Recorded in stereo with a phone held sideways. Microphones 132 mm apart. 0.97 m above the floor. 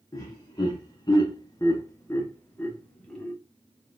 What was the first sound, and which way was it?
Laughter, 30° left (ahead or behind).